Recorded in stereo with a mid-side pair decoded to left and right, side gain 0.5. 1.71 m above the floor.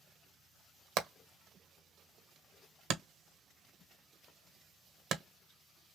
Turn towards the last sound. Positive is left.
turn(degrees=-70)